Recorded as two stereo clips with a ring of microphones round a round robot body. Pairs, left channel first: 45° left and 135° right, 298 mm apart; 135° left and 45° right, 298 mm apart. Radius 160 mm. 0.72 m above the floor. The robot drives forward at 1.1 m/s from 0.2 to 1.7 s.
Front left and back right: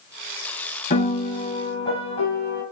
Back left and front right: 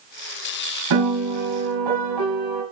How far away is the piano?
About 5 m.